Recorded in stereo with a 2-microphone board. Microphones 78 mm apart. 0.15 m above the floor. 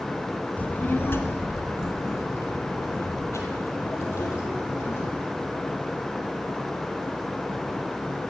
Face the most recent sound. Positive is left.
turn(degrees=35)  # may be behind; listen again after turning